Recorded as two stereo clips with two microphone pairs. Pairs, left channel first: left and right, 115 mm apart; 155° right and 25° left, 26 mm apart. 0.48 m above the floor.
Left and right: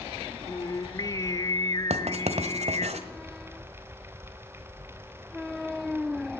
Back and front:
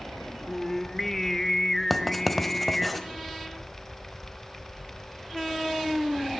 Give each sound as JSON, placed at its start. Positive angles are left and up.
{"t": 0.5, "sound": "singing", "azimuth_deg": 140, "distance_m": 0.7}
{"t": 1.9, "sound": "writing", "azimuth_deg": -70, "distance_m": 1.3}